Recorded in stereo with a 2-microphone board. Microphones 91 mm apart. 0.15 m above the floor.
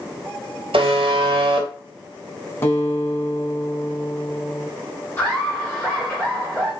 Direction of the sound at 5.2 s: 25° left (ahead or behind).